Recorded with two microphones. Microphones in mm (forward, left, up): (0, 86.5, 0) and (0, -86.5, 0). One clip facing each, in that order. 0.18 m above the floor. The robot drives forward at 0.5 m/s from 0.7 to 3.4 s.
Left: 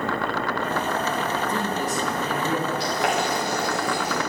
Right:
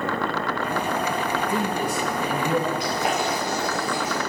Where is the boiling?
80° left, 7.5 m.